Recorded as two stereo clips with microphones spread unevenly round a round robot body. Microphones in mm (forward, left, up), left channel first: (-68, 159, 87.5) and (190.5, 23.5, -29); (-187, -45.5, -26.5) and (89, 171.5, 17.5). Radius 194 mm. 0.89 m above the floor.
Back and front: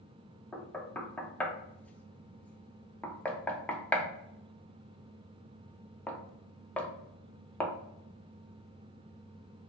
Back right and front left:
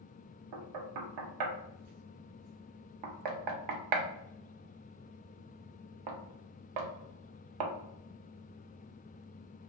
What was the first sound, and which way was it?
Knocking, 55° left.